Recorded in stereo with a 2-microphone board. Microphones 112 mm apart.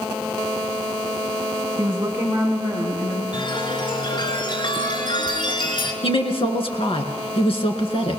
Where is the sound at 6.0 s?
60° left (ahead or behind), 3 m.